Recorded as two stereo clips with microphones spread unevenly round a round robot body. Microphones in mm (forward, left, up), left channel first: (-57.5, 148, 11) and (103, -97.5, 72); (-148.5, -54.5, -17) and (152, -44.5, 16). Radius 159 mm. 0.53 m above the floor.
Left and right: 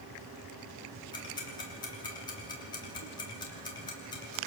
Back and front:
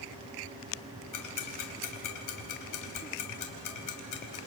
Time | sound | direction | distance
1.1 | ticking | 165° right | 3 m